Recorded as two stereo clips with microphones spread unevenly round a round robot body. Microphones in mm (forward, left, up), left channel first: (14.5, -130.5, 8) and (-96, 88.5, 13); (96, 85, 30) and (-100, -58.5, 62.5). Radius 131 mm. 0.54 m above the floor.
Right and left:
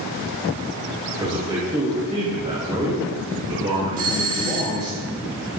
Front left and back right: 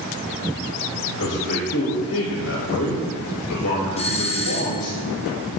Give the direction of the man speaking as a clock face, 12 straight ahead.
10 o'clock.